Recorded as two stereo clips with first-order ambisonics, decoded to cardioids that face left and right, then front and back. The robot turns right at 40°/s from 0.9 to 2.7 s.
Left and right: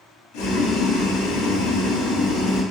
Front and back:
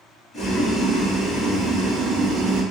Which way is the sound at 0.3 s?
80° left.